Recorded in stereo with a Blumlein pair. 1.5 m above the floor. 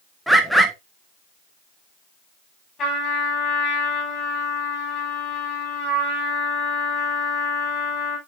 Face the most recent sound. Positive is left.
turn(degrees=30)